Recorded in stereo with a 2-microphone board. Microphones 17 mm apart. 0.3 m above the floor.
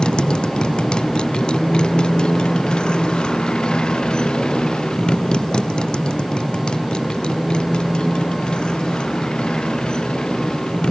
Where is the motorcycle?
80° left; by 10.9 s 75° left (ahead or behind).